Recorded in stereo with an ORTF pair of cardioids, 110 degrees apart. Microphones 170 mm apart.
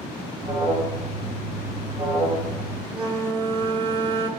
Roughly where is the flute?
Ahead right.